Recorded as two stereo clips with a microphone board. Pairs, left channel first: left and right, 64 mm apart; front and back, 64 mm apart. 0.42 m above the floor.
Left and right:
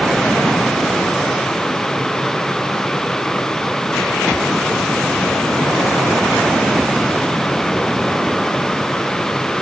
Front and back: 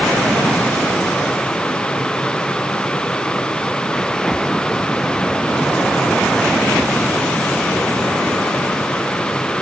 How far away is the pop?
I don't hear a pop.